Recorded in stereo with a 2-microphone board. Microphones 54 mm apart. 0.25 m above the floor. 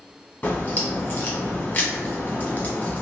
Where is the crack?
30° left (ahead or behind), 1.2 m.